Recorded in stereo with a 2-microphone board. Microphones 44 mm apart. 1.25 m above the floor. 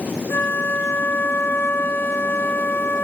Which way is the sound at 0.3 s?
70° left (ahead or behind).